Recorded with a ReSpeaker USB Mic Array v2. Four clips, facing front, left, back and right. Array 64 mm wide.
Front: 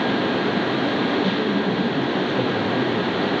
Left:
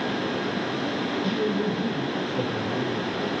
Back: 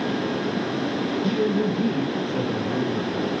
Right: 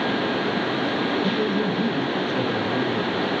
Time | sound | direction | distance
1.2 | a man speaking | 145° right | 5.5 m